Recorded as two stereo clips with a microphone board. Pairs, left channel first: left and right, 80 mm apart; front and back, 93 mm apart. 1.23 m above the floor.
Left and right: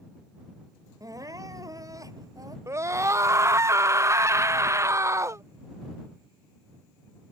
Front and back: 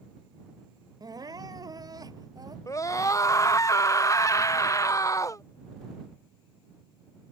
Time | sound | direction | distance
1.0 | crying | 135° right | ?
2.7 | a scream | 45° right | ?